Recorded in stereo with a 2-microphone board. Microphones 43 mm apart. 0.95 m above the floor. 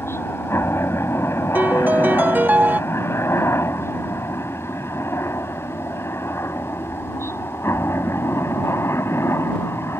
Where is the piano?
40° right (ahead or behind).